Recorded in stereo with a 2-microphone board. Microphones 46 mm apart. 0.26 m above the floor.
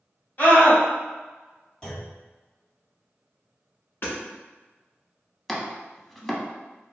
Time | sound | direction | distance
0.4 | a scream | 40° left (ahead or behind) | 1.5 m
1.8 | a clunk | 10° left (ahead or behind) | 1.7 m
4.0 | hammering | 50° left (ahead or behind) | 1.1 m
5.5 | chopping | 5° left (ahead or behind) | 0.5 m